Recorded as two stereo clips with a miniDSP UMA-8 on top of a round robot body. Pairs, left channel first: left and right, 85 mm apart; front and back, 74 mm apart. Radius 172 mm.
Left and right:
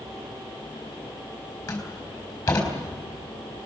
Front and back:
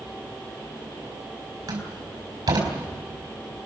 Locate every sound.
1.7 s a door slam: 140° left, 4.5 m